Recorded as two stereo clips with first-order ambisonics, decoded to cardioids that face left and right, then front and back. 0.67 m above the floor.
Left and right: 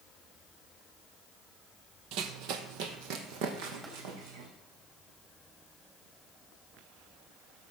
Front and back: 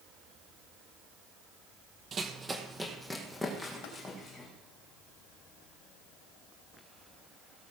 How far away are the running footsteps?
About 1.1 m.